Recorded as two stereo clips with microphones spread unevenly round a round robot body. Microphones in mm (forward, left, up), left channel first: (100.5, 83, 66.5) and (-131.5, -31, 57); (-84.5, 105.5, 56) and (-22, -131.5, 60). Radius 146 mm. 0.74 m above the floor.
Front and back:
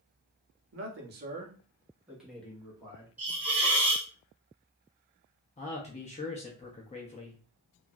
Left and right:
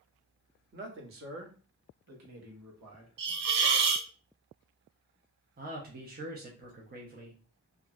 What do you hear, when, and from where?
0.7 s a man speaking: 120° right, 0.9 m; by 3.1 s 50° right, 1.4 m
3.2 s a hiss: 70° right, 0.5 m
5.6 s a man speaking: 35° right, 0.6 m